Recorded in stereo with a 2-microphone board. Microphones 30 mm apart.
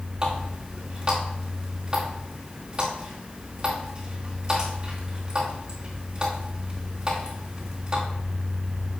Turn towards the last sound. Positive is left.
turn(degrees=-25)  # may be behind; listen again after turning